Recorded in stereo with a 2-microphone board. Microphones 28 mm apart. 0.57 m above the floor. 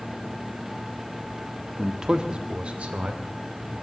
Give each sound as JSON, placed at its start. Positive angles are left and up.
{"t": 1.8, "sound": "a man speaking", "side_deg": -10, "distance_m": 0.8}